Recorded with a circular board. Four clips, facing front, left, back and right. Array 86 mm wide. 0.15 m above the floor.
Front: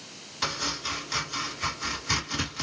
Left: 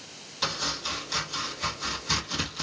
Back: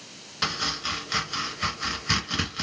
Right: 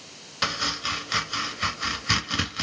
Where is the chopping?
115° right, 1.1 m.